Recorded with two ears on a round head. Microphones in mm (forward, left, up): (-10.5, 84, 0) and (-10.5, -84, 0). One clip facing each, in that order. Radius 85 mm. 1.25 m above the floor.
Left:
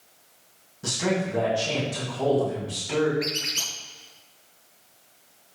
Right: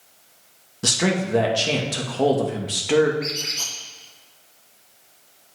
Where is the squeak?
75° left (ahead or behind), 4 m.